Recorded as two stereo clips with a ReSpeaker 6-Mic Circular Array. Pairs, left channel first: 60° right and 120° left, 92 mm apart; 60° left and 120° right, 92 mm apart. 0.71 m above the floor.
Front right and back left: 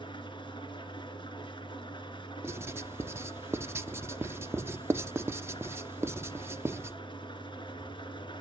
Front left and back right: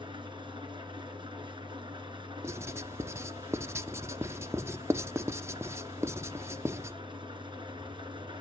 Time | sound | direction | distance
0.0 | an engine running | 90° right | 3 m
2.4 | writing | straight behind | 0.5 m